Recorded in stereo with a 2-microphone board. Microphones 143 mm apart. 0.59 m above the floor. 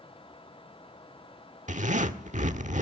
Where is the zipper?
60° right (ahead or behind), 1.3 m.